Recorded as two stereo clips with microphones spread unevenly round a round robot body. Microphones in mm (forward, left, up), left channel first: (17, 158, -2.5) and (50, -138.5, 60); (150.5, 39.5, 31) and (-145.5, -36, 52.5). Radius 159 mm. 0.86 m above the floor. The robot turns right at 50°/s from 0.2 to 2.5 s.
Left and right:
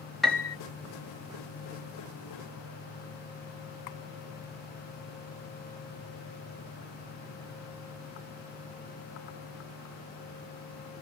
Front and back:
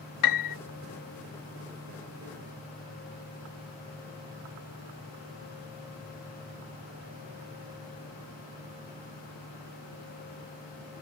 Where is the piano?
10° left; by 0.6 s 30° left.